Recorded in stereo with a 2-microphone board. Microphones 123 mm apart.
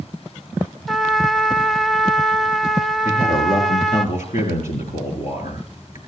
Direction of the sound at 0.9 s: Centre (ahead or behind).